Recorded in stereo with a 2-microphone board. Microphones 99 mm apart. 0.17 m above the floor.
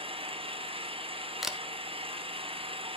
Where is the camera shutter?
5° right (ahead or behind), 0.9 m.